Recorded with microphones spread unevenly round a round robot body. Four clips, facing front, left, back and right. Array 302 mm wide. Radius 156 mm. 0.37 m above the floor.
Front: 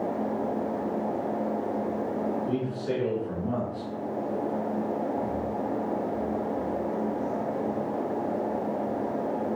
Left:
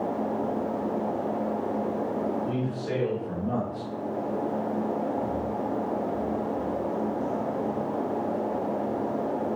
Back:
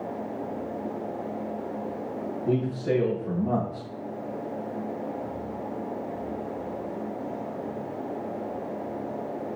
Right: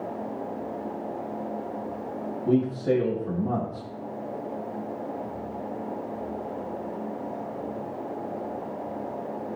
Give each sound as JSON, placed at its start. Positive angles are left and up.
{"t": 2.5, "sound": "a man speaking", "azimuth_deg": -125, "distance_m": 6.0}